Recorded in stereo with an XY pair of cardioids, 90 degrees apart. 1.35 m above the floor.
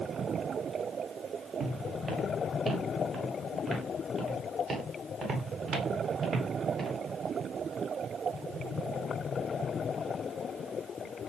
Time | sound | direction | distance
1.6 | footsteps | 45° right | 7 m